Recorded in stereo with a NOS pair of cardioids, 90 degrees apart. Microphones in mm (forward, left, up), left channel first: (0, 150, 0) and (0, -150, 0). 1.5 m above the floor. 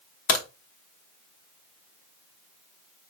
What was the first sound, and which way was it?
A crack, 50° left.